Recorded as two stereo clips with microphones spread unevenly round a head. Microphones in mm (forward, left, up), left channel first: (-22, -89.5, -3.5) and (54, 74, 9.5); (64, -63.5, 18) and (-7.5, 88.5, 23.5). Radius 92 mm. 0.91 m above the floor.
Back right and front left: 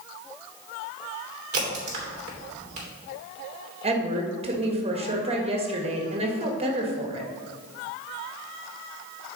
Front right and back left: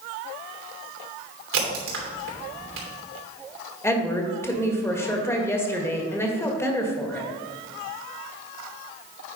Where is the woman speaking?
10° left, 1.5 m.